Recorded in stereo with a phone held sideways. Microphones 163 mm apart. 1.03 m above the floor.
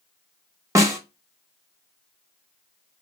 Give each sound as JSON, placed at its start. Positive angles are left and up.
{"t": 0.8, "sound": "a snare drum", "side_deg": -20, "distance_m": 1.0}